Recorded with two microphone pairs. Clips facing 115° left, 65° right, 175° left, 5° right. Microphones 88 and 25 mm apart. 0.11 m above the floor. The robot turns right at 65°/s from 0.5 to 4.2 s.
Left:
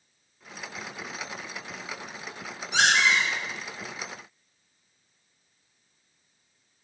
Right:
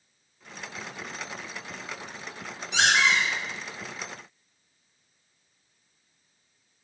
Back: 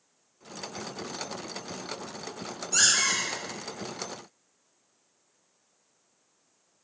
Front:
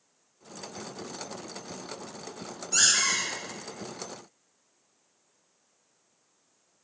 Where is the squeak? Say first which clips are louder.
Even, even; 80° left, 1.8 m; by 3.3 s 115° left, 1.8 m.